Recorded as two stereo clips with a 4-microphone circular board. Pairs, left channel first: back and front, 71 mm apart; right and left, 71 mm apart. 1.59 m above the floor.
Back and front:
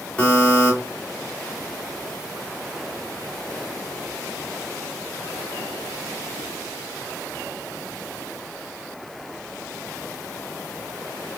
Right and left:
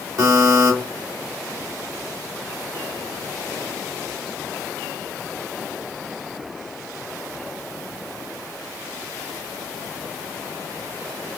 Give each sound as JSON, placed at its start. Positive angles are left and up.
{"t": 0.2, "sound": "a buzzer", "azimuth_deg": 110, "distance_m": 1.7}